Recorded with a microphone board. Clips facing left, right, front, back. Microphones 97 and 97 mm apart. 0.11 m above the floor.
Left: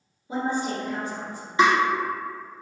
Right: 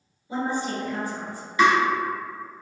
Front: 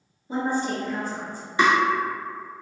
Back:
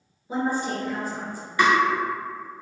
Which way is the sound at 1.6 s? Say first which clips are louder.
Right 1 dB, even; 50° left.